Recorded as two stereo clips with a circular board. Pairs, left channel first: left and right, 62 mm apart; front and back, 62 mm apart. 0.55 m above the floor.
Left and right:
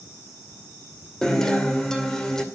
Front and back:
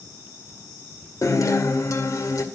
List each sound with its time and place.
1.2 s a guitar: 10° left, 2 m